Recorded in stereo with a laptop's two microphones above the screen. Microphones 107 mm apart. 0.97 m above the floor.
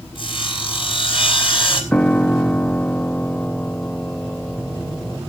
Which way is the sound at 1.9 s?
10° left (ahead or behind).